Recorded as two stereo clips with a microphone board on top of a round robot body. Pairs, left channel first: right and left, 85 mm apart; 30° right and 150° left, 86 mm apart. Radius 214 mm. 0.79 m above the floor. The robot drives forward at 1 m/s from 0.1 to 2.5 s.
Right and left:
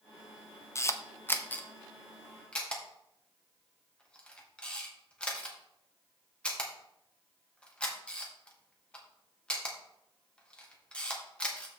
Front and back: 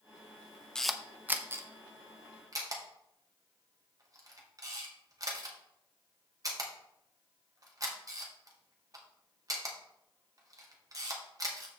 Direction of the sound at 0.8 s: 105° right.